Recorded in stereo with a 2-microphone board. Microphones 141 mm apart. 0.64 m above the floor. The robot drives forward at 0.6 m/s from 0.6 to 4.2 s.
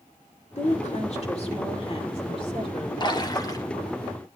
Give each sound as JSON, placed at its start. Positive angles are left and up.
{"t": 0.6, "sound": "a woman speaking", "side_deg": 55, "distance_m": 2.0}
{"t": 3.0, "sound": "a splash", "side_deg": 30, "distance_m": 1.1}